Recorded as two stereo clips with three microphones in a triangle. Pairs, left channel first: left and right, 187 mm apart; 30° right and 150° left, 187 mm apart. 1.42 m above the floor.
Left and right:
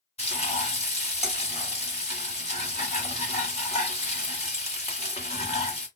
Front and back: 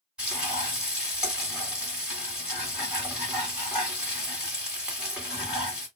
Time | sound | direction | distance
0.2 | frying | 70° left | 1.5 m